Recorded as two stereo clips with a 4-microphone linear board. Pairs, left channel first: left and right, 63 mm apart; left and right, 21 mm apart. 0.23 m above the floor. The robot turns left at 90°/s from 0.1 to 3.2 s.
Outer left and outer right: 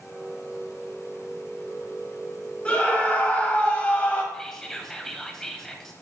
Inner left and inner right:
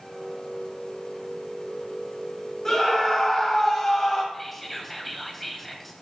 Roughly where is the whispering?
Centre.